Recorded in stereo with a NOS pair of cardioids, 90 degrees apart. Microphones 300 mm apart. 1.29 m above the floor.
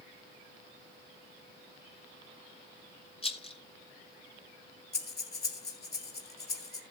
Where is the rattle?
20° left, 2 m.